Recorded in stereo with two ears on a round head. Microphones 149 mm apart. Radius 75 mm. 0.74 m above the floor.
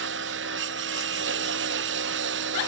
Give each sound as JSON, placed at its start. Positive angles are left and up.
{"t": 0.0, "sound": "a lawn mower", "side_deg": -85}